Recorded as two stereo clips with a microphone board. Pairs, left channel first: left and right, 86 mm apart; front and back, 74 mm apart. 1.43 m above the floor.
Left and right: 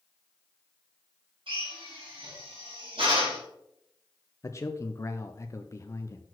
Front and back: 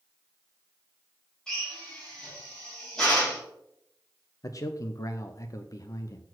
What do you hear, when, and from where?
1.5 s a drill: 80° right, 3.5 m
4.4 s a man speaking: 35° left, 0.5 m